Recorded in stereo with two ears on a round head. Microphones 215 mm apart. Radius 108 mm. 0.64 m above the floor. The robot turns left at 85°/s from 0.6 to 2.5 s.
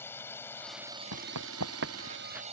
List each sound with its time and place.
0.0 s a drone: 10° left; by 2.5 s 150° right
1.1 s running footsteps: 70° right (ahead or behind); by 2.4 s 5° right (ahead or behind)